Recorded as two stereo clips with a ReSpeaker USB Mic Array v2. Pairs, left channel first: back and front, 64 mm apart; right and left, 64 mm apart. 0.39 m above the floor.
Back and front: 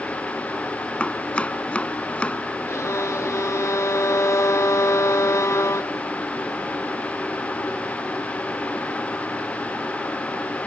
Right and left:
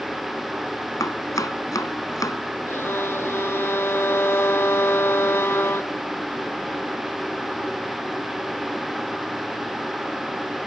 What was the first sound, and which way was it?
Chopping, 110° right.